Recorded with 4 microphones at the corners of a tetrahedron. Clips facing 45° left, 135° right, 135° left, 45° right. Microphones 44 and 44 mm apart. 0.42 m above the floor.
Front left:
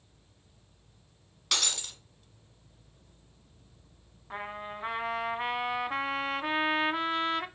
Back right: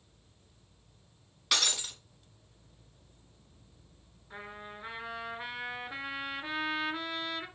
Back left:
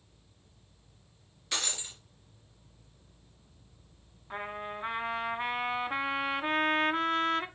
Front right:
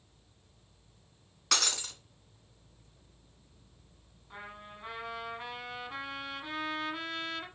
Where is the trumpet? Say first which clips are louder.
Front left 6 dB, back left 9 dB; 80° left, 1.1 m.